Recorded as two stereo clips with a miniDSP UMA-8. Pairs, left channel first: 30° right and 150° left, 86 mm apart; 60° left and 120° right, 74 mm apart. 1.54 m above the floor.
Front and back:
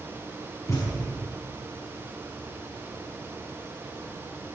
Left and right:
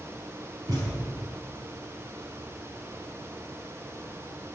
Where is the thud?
85° right, 5.5 m.